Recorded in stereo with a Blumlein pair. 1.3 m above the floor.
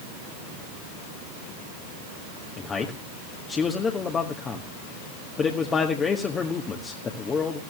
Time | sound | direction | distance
2.6 | a man speaking | 20° left | 1.3 m